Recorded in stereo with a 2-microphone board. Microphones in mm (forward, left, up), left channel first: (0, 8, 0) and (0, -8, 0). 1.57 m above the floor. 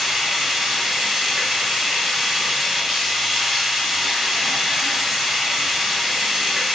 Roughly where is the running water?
Right.